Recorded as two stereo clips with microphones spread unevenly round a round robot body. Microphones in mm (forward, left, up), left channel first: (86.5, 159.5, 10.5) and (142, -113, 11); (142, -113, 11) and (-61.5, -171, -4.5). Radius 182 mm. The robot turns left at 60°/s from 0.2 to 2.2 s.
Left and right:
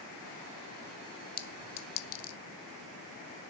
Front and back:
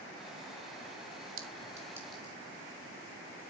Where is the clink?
150° left, 0.7 m; by 2.4 s 100° left, 0.7 m.